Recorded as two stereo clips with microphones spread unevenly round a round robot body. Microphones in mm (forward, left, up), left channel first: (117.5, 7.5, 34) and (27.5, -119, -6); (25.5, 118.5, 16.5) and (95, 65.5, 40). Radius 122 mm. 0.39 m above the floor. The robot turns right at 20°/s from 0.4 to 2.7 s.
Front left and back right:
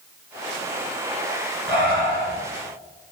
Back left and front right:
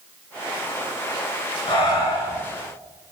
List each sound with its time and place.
1.7 s breathing: 155° left, 1.8 m; by 2.4 s 170° left, 1.8 m